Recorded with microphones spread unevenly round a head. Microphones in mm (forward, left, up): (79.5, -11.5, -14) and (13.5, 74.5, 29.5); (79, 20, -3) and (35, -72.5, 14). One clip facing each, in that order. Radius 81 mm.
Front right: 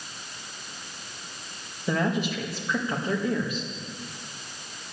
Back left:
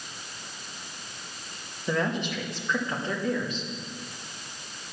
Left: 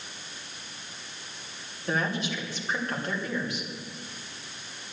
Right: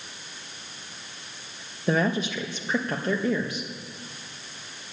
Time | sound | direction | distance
1.9 | a woman speaking | 135° right | 1.4 m